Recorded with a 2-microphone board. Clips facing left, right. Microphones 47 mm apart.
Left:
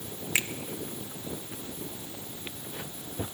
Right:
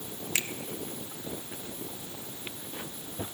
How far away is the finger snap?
About 1.2 m.